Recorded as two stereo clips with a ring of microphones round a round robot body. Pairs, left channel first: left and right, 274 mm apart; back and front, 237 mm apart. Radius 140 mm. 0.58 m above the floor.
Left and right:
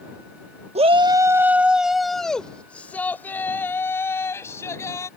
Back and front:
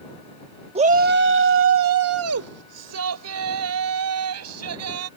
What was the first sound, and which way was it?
A shout, 45° right.